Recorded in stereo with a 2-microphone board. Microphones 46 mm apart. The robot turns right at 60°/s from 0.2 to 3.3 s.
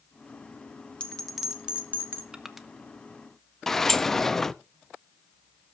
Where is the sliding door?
5° left (ahead or behind), 0.5 m.